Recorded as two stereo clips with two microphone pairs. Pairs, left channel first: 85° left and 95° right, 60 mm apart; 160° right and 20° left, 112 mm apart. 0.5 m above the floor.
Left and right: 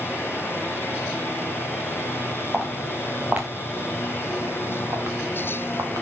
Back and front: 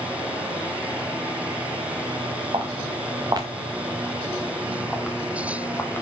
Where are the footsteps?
20° right, 3 m; by 6.0 s 90° right, 2.5 m.